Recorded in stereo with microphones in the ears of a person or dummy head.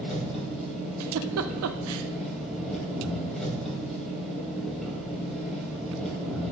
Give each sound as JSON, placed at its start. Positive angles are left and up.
{"t": 0.0, "sound": "an engine running", "side_deg": -5, "distance_m": 2.5}
{"t": 1.0, "sound": "a giggle", "side_deg": -80, "distance_m": 0.7}